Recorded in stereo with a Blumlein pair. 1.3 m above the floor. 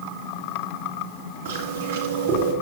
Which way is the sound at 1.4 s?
70° right.